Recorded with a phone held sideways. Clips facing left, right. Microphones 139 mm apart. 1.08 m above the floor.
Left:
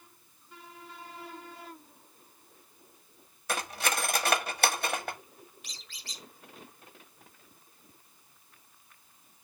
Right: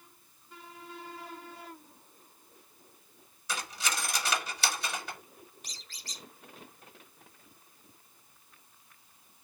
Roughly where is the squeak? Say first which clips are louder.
Even; right.